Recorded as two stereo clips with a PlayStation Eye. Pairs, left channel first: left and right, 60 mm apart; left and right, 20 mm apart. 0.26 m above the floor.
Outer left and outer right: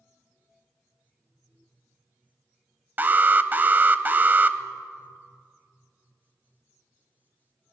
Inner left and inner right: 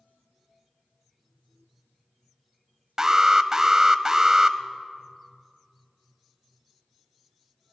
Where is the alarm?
30° right (ahead or behind), 0.8 m.